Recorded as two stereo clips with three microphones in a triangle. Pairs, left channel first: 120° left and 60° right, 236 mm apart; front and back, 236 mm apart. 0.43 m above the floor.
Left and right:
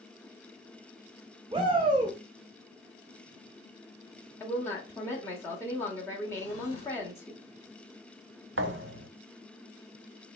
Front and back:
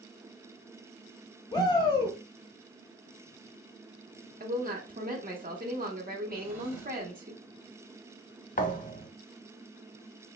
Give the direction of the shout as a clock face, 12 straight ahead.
1 o'clock.